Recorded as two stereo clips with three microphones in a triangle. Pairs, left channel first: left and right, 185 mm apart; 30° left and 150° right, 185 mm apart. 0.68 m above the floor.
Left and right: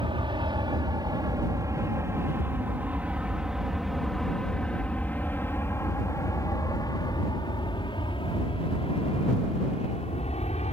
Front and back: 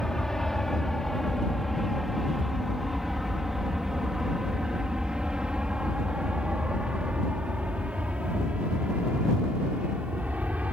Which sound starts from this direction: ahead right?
An aircraft, at 0.0 s.